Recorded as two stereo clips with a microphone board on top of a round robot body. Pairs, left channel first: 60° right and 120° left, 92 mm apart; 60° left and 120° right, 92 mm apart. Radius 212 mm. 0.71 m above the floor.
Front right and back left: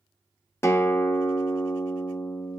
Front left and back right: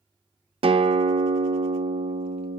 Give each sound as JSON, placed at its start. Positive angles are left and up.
{"t": 0.6, "sound": "a guitar", "azimuth_deg": -120, "distance_m": 0.8}